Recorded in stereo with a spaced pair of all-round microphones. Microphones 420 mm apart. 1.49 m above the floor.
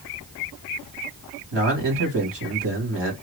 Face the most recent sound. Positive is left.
turn(degrees=-80)